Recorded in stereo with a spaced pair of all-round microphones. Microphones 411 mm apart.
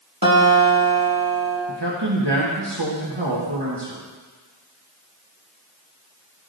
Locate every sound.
0.2 s a guitar: 55° right (ahead or behind), 1.8 m
1.7 s a man speaking: 80° right, 1.4 m